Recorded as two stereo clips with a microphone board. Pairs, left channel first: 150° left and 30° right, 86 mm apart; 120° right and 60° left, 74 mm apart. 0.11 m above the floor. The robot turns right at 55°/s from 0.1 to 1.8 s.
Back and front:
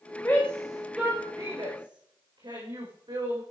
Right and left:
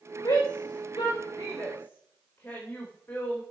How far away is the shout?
About 8.5 m.